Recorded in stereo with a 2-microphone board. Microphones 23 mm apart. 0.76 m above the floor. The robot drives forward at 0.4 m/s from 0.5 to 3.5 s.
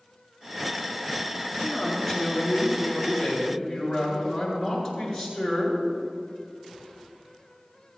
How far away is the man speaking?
About 8 m.